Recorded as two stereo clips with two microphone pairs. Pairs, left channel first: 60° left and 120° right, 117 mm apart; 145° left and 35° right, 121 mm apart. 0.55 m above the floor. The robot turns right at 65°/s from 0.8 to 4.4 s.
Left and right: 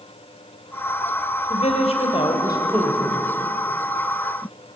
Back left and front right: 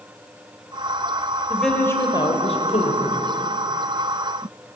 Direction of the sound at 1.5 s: 50° left.